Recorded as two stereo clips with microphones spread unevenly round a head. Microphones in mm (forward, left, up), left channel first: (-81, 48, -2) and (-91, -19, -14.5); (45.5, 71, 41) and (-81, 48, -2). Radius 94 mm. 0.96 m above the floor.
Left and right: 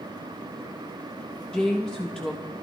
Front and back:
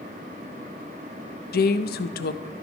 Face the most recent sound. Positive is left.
turn(degrees=-10)